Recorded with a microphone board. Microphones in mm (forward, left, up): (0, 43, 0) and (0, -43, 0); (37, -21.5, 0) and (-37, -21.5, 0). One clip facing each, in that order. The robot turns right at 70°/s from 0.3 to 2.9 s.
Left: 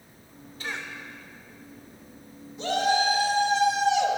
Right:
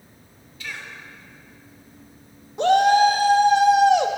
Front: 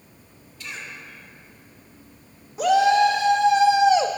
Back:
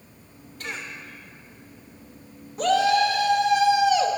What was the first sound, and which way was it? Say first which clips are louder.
A cough: left 1 dB, back 2 dB; 140° left.